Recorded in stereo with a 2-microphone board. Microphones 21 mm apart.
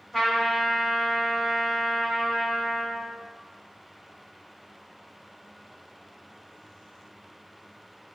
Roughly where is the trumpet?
Centre.